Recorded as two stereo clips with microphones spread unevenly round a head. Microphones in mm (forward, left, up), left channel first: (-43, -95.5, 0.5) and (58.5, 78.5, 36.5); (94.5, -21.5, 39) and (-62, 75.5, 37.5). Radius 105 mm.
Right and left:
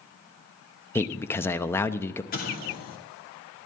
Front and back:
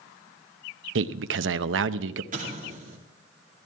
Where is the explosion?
165° right, 2.5 m.